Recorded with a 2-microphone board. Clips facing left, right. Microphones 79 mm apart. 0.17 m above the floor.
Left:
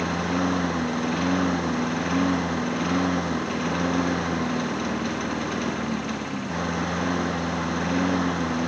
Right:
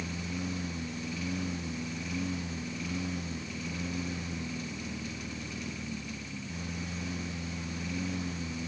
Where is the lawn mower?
65° left (ahead or behind).